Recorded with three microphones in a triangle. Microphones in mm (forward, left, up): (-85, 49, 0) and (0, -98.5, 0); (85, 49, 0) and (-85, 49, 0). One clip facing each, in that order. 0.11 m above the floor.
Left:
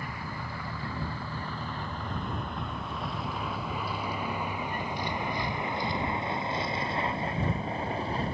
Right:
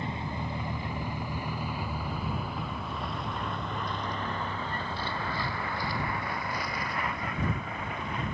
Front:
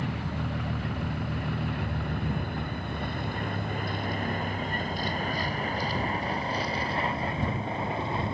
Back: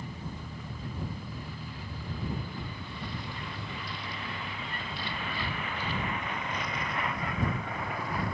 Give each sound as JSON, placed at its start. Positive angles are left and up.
{"t": 0.0, "sound": "a vehicle", "azimuth_deg": 5}